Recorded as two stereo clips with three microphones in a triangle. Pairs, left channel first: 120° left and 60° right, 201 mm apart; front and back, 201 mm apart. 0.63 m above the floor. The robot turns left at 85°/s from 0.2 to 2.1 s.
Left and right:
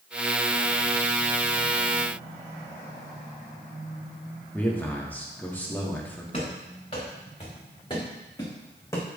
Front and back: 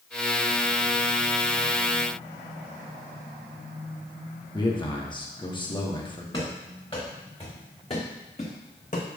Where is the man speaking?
45° left, 1.0 m.